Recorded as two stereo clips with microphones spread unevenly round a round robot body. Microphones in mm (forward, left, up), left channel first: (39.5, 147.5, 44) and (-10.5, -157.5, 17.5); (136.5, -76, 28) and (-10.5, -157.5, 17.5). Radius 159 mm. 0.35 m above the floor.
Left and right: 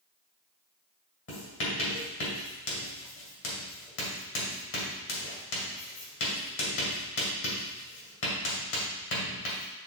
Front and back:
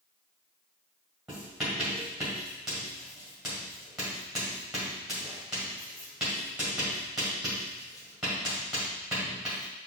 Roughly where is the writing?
Behind left.